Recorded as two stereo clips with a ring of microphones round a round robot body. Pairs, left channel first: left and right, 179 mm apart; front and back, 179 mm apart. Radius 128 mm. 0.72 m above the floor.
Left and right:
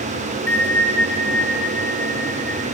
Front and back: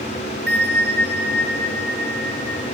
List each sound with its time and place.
0.5 s a bell: 170° left, 1.5 m